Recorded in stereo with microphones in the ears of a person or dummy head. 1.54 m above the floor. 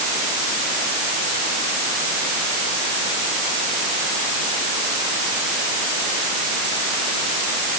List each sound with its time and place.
Only background noise.